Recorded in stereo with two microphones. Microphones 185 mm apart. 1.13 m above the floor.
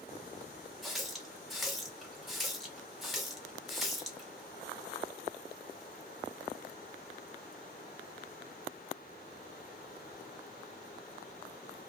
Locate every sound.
0.8 s a running tap: centre (ahead or behind), 0.7 m